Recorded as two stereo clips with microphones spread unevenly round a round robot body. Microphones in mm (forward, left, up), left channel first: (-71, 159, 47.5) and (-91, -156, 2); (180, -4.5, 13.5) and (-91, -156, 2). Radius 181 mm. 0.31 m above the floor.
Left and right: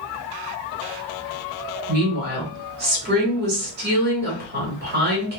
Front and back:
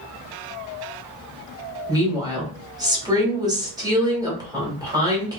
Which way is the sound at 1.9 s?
85° right.